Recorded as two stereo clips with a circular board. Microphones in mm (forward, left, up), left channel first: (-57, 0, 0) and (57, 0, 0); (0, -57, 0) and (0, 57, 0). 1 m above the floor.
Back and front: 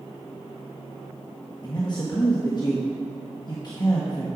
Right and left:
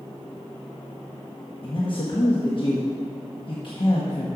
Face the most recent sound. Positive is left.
turn(degrees=-130)